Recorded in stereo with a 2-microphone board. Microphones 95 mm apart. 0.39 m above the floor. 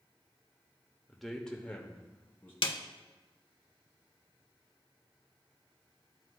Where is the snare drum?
60° left (ahead or behind), 0.5 m.